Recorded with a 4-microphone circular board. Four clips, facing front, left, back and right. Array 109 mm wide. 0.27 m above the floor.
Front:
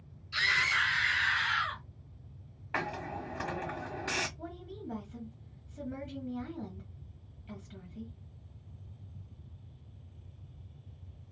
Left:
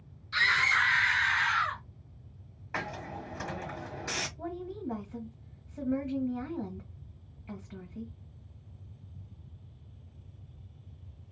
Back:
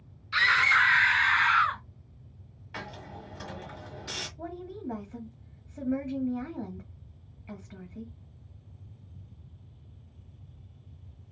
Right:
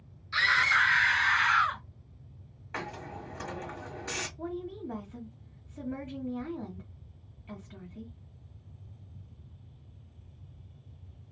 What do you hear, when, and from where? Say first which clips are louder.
0.3 s a scream: right 1 dB, back 7 dB; 175° right, 3 m; by 1.8 s 155° right, 2.5 m
2.7 s a hiss: left 2 dB, front 6 dB; 20° left, 1.5 m
4.4 s a woman speaking: right 1 dB, back 5 dB; 155° left, 1.8 m